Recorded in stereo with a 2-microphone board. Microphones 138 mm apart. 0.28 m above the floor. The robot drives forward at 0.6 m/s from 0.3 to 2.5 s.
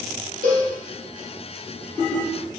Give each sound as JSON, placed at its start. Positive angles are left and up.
{"t": 0.4, "sound": "a cowbell", "side_deg": -80, "distance_m": 4.0}